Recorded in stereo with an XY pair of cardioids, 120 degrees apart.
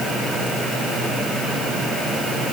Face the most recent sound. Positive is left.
No sound to turn to.